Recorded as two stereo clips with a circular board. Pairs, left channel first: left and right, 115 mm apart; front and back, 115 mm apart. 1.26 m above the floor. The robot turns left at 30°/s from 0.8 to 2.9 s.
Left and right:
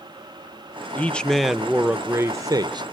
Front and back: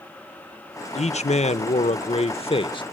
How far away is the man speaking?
About 0.7 m.